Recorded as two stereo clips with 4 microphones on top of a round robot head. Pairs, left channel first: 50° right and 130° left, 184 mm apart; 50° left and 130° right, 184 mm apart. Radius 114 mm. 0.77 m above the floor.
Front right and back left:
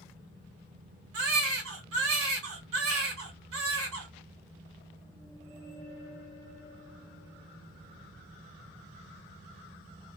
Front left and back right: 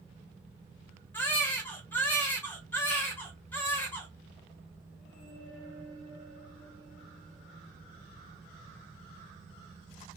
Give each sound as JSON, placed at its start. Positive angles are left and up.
{"t": 1.1, "sound": "a baby crying", "azimuth_deg": 130, "distance_m": 1.0}